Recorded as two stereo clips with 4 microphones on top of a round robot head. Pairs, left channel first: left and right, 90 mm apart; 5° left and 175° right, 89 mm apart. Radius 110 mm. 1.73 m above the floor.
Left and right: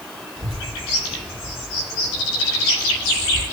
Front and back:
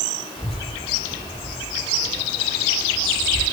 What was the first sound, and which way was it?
A child speaking, 85° right.